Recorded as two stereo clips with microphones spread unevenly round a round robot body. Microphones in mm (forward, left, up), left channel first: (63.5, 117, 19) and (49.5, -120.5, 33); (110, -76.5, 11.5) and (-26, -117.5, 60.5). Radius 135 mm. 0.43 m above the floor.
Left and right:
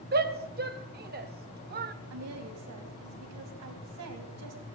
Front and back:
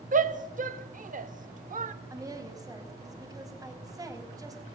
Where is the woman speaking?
90° right, 4 m.